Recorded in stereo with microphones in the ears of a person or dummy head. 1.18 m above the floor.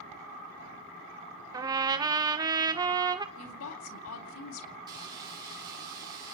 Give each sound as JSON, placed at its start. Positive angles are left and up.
{"t": 1.5, "sound": "a trumpet", "side_deg": -20, "distance_m": 0.9}
{"t": 3.4, "sound": "a woman speaking", "side_deg": 80, "distance_m": 3.0}
{"t": 4.9, "sound": "frying", "side_deg": -25, "distance_m": 5.5}